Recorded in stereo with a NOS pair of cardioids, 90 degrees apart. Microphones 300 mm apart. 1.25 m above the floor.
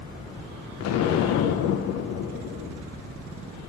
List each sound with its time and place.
0.8 s an explosion: 60° left, 0.5 m